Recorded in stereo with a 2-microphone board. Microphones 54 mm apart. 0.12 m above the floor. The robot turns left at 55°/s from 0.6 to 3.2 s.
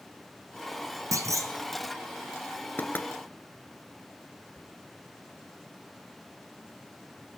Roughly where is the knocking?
Left.